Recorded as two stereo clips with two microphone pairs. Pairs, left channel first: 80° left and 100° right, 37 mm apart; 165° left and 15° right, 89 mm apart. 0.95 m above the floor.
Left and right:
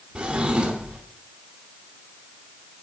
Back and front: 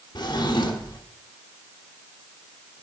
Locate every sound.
0.1 s a drawer: 165° right, 1.0 m